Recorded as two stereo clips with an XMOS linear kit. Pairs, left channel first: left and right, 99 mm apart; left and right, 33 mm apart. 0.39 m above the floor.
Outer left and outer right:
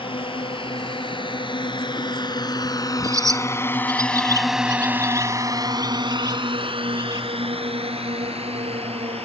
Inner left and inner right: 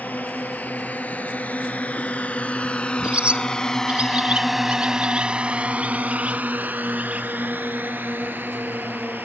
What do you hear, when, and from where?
0.0 s a drone: 60° left (ahead or behind); by 9.3 s 80° right
3.0 s a bird: 35° right (ahead or behind)